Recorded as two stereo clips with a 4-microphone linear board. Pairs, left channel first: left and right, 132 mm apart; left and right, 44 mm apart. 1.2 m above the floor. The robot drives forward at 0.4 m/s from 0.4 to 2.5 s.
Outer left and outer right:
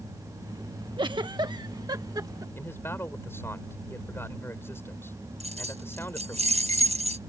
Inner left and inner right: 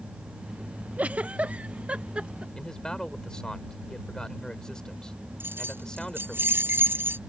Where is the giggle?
35° right (ahead or behind); by 2.5 s 25° right (ahead or behind).